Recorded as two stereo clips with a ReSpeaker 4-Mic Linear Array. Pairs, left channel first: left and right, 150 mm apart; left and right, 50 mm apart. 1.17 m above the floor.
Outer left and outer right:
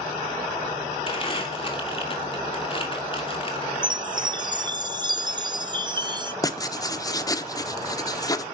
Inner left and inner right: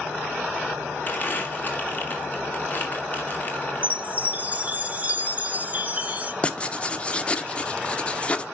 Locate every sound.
1.1 s crumpling: 35° left (ahead or behind), 2.5 m
3.8 s a chime: 30° right (ahead or behind), 0.8 m
6.4 s writing: 25° left (ahead or behind), 1.0 m